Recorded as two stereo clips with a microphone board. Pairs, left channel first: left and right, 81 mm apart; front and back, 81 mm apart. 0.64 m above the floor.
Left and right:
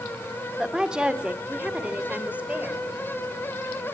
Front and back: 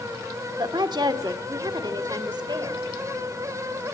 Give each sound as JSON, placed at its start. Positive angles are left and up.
{"t": 0.6, "sound": "a woman speaking", "azimuth_deg": -170, "distance_m": 1.6}